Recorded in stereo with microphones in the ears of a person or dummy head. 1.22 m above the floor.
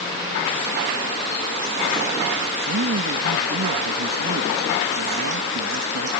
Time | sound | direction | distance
2.7 | a man speaking | 75° right (ahead or behind) | ?